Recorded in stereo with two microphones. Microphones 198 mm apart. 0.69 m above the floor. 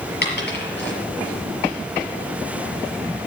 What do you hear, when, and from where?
0.2 s a dropped coin: 55° left (ahead or behind), 5 m